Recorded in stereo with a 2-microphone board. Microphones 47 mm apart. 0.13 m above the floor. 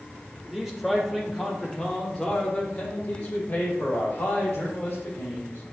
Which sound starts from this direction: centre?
A man speaking, at 0.5 s.